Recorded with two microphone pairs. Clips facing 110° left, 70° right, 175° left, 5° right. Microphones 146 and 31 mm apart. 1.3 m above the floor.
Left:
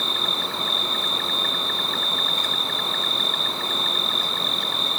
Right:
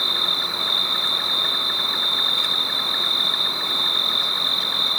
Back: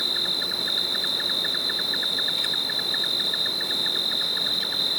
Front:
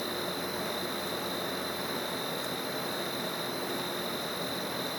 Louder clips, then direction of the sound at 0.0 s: Left 1 dB, back 9 dB; 150° left.